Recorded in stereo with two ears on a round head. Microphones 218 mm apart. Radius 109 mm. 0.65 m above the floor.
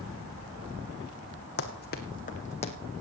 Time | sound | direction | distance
1.6 | running footsteps | 45° left (ahead or behind) | 2 m